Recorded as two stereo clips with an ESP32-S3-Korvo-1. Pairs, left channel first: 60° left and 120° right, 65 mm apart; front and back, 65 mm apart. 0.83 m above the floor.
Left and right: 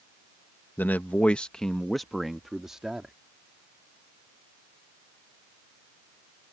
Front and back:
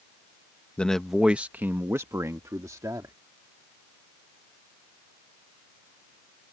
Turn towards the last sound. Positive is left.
turn(degrees=160)